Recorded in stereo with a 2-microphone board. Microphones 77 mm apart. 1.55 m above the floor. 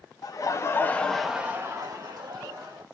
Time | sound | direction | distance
0.2 | laughter | 50° left (ahead or behind) | 0.7 m